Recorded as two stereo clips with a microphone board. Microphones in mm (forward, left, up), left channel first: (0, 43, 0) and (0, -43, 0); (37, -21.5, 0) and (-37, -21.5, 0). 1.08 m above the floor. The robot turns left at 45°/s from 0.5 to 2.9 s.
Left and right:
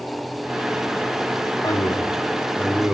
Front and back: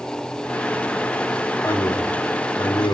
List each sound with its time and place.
1.6 s a man speaking: 45° left, 3 m; by 3.0 s 10° right, 3 m